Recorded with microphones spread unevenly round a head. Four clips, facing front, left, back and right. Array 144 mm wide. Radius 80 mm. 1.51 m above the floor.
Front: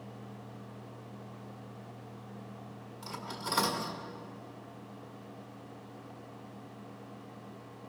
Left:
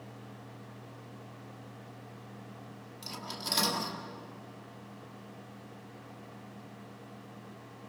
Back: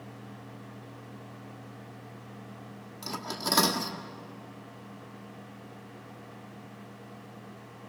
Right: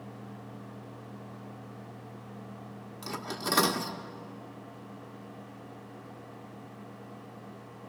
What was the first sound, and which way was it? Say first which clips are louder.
Cutlery clinking: right 6 dB, back 5 dB; 145° right.